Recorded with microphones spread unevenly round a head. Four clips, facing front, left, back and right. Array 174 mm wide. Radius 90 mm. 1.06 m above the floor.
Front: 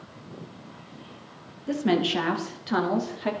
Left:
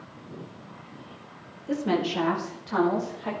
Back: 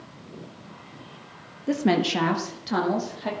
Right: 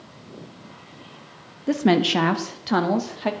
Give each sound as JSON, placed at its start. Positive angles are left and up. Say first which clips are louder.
{"t": 1.7, "sound": "a woman speaking", "louder": "right 7 dB, back 2 dB", "azimuth_deg": -115, "distance_m": 1.6}